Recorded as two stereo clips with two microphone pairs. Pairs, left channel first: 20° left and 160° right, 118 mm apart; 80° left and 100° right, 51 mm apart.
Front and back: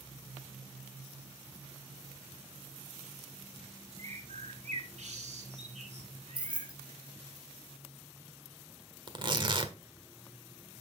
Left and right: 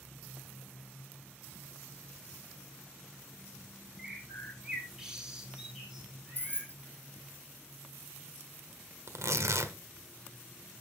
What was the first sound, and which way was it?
A bird, straight behind.